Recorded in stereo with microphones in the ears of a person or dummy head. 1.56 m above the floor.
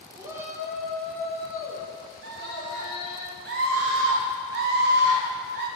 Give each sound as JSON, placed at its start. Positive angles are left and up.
{"t": 0.2, "sound": "a shout", "side_deg": -25, "distance_m": 1.3}
{"t": 2.2, "sound": "a scream", "side_deg": -65, "distance_m": 0.9}